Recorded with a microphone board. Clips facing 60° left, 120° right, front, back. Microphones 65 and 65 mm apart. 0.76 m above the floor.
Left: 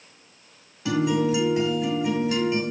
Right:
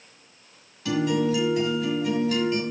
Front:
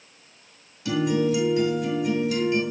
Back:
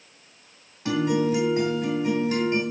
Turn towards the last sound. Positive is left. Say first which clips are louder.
# left 1 dB, even
turn(degrees=125)